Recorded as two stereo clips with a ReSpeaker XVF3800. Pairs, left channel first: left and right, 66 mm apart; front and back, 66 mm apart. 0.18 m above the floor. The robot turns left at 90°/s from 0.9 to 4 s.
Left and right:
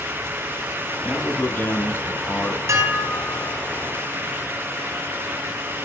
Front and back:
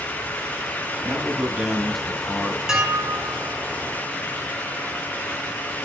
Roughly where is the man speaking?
Behind.